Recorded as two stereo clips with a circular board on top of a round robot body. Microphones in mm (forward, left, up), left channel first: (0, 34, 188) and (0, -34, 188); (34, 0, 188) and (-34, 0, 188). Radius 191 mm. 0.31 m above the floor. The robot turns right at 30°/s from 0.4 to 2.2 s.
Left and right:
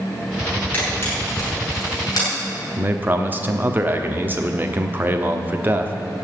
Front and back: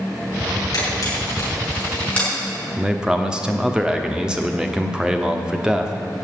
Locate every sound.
0.7 s a camera shutter: 25° left, 7 m; by 2.3 s 70° left, 7 m
2.8 s a man speaking: 110° right, 1.4 m